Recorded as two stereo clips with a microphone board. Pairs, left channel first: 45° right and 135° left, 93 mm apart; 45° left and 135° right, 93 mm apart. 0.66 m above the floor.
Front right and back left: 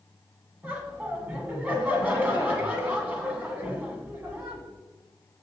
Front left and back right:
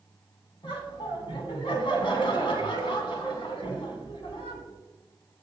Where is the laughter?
65° left, 1.7 m.